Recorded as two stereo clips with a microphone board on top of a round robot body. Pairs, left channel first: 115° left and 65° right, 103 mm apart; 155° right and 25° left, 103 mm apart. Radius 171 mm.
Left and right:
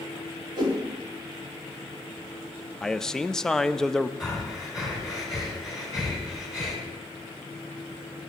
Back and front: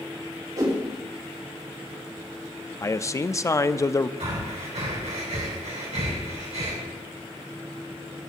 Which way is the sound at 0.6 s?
25° right.